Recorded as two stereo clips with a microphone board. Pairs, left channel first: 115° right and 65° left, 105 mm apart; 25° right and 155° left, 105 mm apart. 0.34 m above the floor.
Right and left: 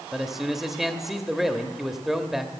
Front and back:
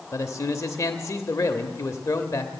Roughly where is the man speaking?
Ahead.